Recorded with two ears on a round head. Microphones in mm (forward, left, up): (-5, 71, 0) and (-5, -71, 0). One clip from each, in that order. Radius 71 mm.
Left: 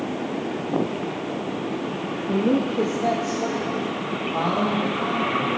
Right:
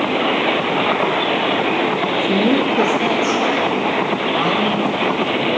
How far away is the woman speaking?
About 0.6 m.